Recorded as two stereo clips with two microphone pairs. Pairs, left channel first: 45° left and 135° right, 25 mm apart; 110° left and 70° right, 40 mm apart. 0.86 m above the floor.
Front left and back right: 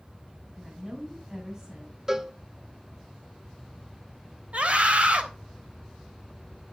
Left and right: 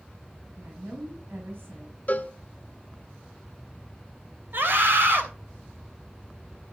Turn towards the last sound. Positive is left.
turn(degrees=-100)